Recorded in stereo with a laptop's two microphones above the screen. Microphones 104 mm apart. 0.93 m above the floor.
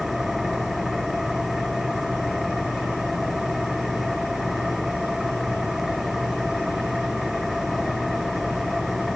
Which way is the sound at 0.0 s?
5° right (ahead or behind).